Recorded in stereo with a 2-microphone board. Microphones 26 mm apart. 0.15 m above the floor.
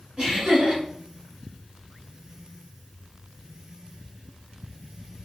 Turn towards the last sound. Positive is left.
turn(degrees=-25)  # may be behind; listen again after turning